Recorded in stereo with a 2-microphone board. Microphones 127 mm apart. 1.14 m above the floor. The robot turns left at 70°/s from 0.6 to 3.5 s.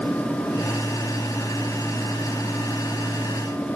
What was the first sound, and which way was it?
Only background noise.